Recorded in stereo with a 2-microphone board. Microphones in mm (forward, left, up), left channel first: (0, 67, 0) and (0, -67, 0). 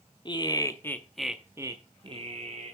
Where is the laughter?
35° left (ahead or behind), 1.1 m; by 2.7 s 60° right (ahead or behind), 1.2 m.